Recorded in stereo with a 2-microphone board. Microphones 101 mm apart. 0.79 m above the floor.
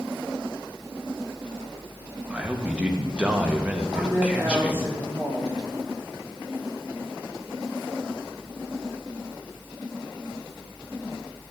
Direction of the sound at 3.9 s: 35° right (ahead or behind).